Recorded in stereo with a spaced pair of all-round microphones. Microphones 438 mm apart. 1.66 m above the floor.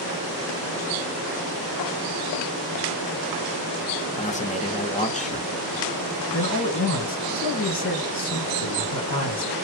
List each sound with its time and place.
4.2 s a man speaking: 15° left (ahead or behind), 0.7 m
6.3 s a man speaking: 45° left (ahead or behind), 1.5 m